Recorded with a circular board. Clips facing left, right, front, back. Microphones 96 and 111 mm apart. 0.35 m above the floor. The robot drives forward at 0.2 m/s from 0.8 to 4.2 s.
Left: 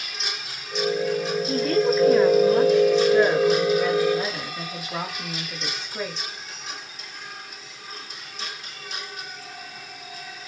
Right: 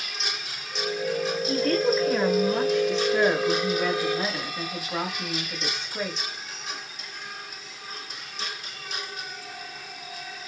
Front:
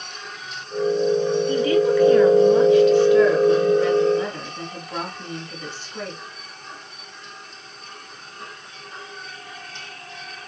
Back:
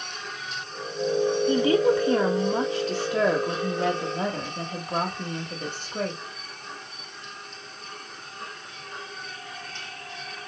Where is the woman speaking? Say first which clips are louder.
Left 2 dB, front 1 dB; 175° left, 0.8 m; by 6.2 s straight behind, 1.2 m.